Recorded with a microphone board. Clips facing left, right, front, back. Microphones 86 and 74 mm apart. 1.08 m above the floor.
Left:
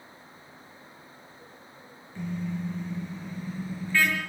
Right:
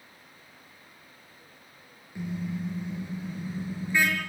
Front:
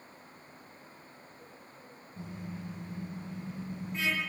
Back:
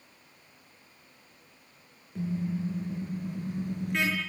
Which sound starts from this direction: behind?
A car horn, at 2.1 s.